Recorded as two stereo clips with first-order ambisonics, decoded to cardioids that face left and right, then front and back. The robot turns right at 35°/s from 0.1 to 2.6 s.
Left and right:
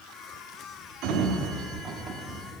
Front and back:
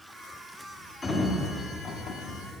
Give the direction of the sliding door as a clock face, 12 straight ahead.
2 o'clock.